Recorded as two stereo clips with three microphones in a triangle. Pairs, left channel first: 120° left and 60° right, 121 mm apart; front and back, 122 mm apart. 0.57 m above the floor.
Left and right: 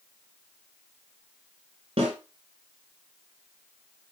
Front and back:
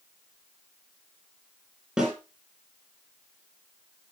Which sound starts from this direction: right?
A snare drum, at 2.0 s.